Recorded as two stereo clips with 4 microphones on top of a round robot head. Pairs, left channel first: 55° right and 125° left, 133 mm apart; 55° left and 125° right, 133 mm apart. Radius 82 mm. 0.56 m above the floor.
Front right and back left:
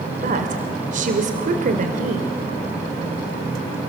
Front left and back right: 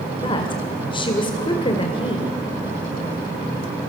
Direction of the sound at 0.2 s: 105° left.